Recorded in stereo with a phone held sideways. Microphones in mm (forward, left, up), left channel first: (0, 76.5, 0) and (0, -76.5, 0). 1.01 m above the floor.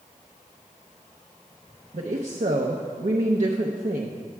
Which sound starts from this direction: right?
A woman speaking, at 1.9 s.